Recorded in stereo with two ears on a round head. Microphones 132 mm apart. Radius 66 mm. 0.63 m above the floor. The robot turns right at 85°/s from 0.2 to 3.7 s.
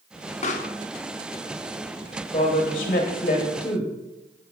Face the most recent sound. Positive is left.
turn(degrees=150)